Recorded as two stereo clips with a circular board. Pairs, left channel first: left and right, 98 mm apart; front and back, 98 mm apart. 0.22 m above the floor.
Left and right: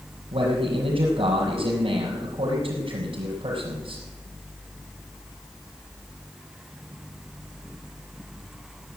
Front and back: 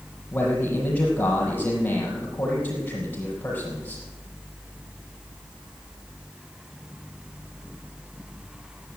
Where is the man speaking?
75° right, 5.5 m.